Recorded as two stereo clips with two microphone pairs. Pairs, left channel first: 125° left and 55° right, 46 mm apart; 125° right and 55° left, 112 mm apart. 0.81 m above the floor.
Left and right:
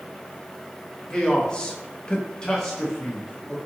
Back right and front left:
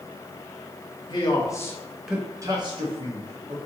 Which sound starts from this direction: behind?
A man speaking, at 1.1 s.